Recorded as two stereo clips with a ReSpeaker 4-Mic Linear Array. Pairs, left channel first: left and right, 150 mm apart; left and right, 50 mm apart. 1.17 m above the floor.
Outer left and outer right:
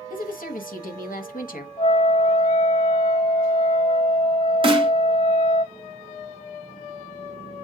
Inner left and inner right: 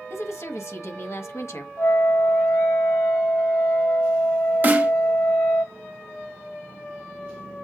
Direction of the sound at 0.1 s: 70° left (ahead or behind).